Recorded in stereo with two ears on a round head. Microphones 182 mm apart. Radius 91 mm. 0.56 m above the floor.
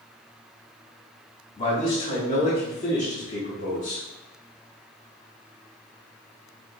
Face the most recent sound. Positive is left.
turn(degrees=35)  # may be behind; listen again after turning